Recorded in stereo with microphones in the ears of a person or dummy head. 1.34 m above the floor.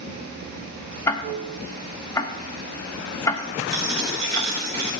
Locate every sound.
0.0 s running water: 40° right (ahead or behind), 2.5 m
1.1 s ticking: 20° left (ahead or behind), 0.6 m
3.7 s a dropped coin: 35° right (ahead or behind), 1.8 m